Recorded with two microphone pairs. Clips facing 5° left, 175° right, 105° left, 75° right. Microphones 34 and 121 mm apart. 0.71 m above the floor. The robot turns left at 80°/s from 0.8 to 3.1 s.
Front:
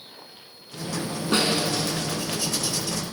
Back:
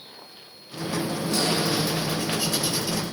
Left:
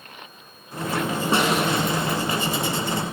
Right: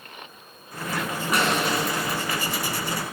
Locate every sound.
1.3 s a snare drum: 45° left, 5 m; by 1.7 s 15° left, 5 m